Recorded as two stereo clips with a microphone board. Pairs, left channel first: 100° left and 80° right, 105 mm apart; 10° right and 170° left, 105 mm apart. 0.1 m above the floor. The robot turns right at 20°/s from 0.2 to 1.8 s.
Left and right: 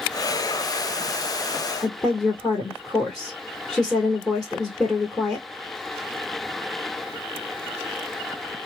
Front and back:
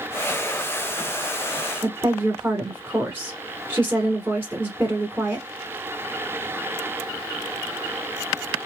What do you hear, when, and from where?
1.8 s a woman speaking: 175° left, 1.1 m